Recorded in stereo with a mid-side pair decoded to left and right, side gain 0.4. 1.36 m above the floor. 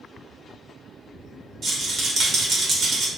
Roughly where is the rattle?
Ahead right.